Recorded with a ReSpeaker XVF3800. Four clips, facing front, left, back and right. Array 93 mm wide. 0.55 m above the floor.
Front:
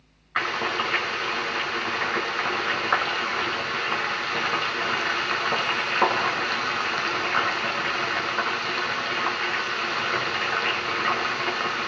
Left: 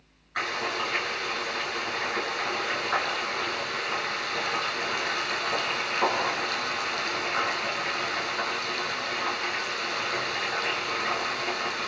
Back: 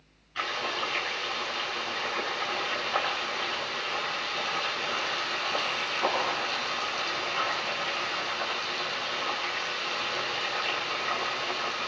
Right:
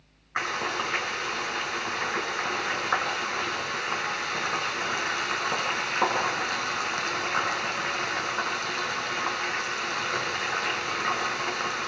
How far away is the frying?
About 5 m.